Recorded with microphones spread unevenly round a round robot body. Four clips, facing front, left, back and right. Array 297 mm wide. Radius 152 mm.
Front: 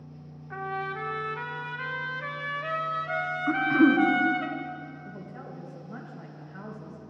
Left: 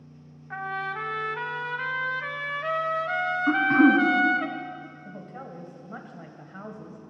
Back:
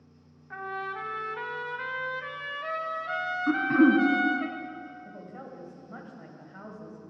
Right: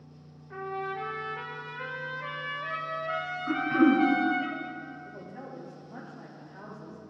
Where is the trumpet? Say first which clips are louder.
Left 2 dB, front 2 dB; 85° left, 1.0 m.